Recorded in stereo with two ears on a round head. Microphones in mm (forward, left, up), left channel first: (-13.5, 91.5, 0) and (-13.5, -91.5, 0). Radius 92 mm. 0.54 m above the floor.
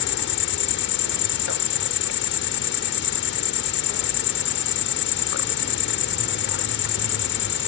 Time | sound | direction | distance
0.0 | an insect | 65° left (ahead or behind) | ?